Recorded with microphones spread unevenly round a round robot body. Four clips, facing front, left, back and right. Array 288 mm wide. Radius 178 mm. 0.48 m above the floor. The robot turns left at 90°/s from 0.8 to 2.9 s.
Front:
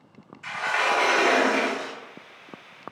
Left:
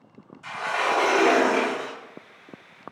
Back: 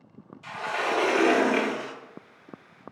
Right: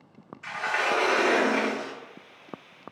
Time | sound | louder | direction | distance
0.4 | a sliding door | left 2 dB, front 4 dB | 175° left | 0.6 m